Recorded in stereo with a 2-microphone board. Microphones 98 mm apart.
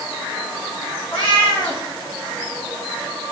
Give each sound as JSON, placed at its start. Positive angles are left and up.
{"t": 1.1, "sound": "a cat meowing", "side_deg": 70, "distance_m": 4.0}